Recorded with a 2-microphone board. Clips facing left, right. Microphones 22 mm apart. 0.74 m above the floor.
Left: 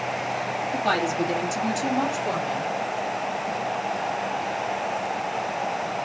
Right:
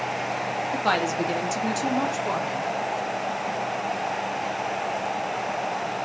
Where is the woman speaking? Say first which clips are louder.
Even; 25° right (ahead or behind), 1.1 m; by 2.7 s 5° right (ahead or behind), 1.6 m.